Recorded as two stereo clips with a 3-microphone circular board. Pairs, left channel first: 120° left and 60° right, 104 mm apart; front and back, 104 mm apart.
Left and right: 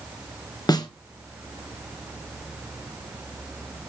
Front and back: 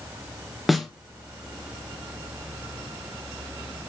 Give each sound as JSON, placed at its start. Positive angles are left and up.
{"t": 0.7, "sound": "a snare drum", "azimuth_deg": 90, "distance_m": 1.4}